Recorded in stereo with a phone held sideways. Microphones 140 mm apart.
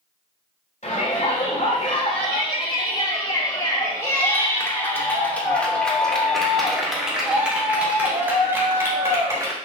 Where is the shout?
60° left (ahead or behind), 3 m; by 9.6 s 30° right (ahead or behind), 3.5 m.